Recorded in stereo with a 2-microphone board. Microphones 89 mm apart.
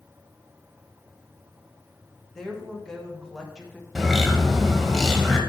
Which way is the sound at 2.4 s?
5° left (ahead or behind).